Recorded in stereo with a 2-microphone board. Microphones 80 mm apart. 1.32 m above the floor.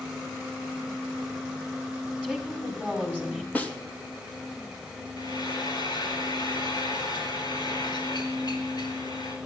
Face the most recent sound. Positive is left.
turn(degrees=65)  # may be behind; listen again after turning